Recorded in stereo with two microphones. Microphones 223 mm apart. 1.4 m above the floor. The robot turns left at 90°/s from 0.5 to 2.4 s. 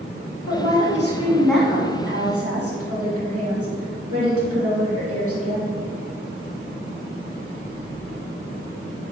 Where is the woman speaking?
95° left, 2.5 m; by 5.7 s 80° right, 2.5 m.